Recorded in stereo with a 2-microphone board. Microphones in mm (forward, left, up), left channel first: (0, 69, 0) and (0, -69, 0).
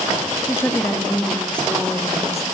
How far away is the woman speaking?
About 3.5 m.